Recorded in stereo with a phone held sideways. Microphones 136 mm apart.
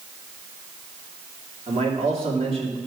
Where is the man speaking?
45° right (ahead or behind), 2.5 m.